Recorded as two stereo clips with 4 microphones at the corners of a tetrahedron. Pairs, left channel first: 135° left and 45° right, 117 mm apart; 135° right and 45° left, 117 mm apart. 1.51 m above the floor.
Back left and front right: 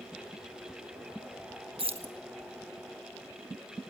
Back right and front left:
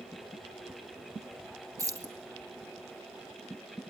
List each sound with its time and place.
1.8 s keys jangling: 15° right, 1.3 m